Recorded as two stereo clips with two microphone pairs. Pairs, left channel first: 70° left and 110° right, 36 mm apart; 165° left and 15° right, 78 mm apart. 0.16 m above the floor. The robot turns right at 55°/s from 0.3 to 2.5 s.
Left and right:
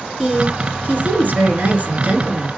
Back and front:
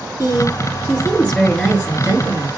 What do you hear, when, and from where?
0.2 s a woman speaking: 170° right, 2 m; by 2.5 s 50° right, 2 m